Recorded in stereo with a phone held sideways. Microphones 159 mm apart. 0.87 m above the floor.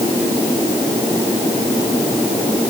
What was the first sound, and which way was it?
Only background noise.